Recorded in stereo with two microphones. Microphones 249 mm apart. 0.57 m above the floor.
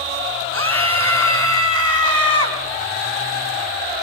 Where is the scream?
60° right (ahead or behind), 7 m; by 2.6 s 75° right (ahead or behind), 5 m.